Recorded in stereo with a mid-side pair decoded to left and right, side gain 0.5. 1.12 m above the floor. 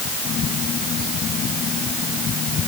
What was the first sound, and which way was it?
Only background noise.